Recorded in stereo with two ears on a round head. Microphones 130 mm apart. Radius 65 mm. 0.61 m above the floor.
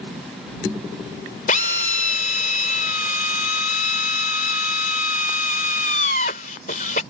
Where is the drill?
60° left (ahead or behind).